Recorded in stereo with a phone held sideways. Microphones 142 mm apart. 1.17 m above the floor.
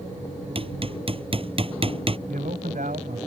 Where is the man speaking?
85° right.